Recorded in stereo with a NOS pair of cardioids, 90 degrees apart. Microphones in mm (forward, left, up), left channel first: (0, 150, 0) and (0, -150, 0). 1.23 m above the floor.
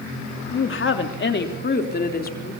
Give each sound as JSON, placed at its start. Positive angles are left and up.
{"t": 0.5, "sound": "a woman speaking", "azimuth_deg": 45, "distance_m": 3.0}